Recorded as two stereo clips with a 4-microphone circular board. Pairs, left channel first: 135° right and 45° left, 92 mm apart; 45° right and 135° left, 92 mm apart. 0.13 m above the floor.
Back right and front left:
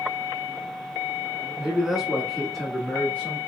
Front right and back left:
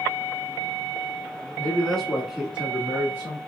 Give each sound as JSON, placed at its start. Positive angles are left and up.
{"t": 1.6, "sound": "a man speaking", "azimuth_deg": -15, "distance_m": 1.1}